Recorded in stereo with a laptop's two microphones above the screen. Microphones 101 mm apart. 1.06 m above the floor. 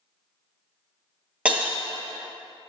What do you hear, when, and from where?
1.4 s breaking glass: 15° right (ahead or behind), 1.6 m